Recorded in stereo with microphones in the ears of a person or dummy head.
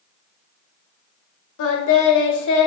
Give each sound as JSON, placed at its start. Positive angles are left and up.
{"t": 1.6, "sound": "singing", "side_deg": 70, "distance_m": 0.6}